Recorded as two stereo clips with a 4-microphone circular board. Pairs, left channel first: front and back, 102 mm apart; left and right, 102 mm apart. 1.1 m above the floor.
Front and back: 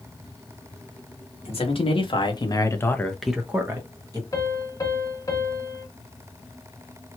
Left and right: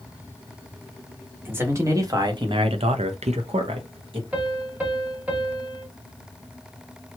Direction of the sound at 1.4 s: 20° right.